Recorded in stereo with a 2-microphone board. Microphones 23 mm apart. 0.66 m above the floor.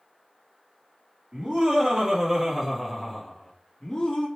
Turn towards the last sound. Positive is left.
turn(degrees=35)  # may be behind; listen again after turning